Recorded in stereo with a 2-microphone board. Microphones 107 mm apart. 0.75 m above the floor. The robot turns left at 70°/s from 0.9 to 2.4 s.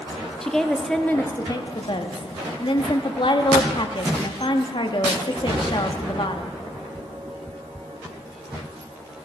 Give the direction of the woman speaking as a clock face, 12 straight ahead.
6 o'clock.